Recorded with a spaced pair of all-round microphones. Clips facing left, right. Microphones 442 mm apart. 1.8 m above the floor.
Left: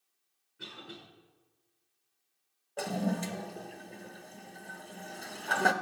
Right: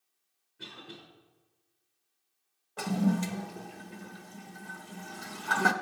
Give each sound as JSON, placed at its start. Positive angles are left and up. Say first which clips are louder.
{"t": 0.6, "sound": "a cough", "louder": "even", "side_deg": 0, "distance_m": 5.5}
{"t": 2.8, "sound": "a toilet flushing", "louder": "right 4 dB", "side_deg": -20, "distance_m": 0.6}